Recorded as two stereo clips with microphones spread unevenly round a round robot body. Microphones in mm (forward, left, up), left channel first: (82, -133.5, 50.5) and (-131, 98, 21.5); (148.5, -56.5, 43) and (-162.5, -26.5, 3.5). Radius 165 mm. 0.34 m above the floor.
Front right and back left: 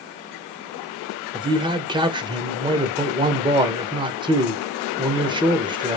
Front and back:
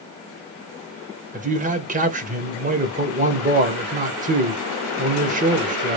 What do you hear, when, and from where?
1.3 s a man speaking: 175° right, 1.1 m